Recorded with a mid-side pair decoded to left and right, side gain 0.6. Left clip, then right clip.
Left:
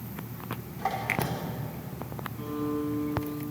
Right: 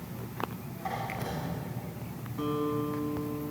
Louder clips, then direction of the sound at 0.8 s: Left 6 dB; 45° left.